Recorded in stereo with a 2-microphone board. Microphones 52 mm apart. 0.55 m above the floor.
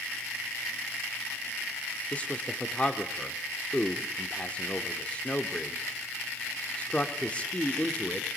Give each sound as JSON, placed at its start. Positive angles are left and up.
{"t": 2.1, "sound": "a man speaking", "side_deg": 25, "distance_m": 1.2}